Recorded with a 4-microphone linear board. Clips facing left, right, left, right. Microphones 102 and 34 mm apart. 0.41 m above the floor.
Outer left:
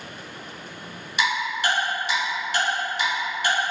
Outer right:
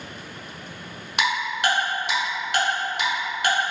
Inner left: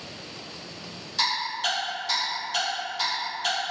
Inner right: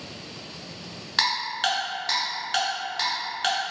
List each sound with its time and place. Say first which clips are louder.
1.2 s ticking: outer right 1 dB, inner right 2 dB; 60° right (ahead or behind), 1.4 m